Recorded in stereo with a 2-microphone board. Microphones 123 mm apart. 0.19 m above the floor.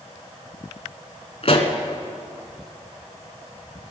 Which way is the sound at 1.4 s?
55° left (ahead or behind).